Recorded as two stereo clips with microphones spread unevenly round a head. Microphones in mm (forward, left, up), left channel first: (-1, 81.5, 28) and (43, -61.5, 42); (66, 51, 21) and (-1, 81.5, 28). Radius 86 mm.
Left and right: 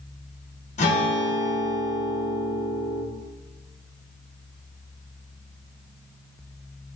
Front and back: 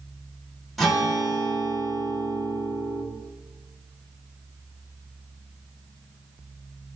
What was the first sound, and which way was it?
A guitar, 65° left.